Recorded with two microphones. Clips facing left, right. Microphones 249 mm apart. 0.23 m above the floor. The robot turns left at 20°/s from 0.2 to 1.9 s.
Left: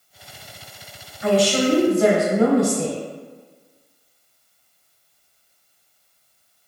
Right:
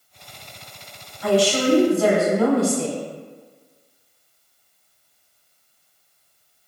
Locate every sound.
1.2 s a woman speaking: 20° left (ahead or behind), 1.0 m